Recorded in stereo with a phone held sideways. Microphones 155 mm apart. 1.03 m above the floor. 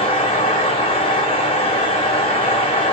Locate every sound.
0.0 s a fan: 40° left (ahead or behind), 0.9 m